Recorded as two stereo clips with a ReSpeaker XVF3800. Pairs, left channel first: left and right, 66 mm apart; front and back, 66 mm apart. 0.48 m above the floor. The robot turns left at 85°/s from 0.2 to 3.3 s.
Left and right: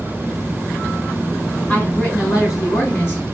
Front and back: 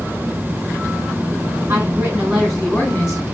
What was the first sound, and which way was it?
A woman speaking, 160° left.